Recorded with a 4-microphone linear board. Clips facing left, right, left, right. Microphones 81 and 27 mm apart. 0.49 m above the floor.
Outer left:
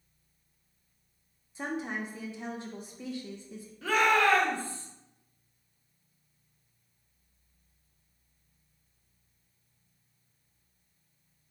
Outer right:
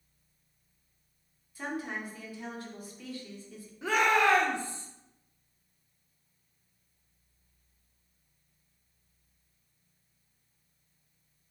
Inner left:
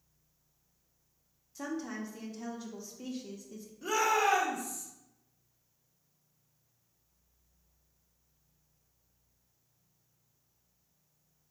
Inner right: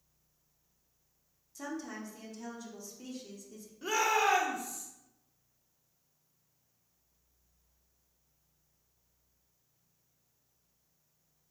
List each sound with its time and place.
1.6 s a woman speaking: 20° left (ahead or behind), 0.7 m
3.8 s a shout: 20° right (ahead or behind), 0.8 m